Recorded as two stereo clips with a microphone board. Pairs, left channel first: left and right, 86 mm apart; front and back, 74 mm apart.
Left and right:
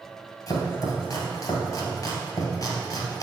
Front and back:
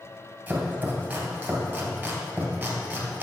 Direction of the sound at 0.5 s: 115° left.